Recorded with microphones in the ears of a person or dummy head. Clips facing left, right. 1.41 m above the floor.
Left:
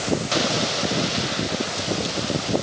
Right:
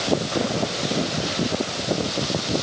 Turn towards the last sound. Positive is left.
No sound to turn to.